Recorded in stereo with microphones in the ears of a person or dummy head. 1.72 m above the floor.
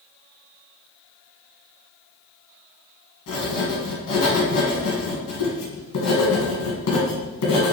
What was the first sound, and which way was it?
Writing, 75° left (ahead or behind).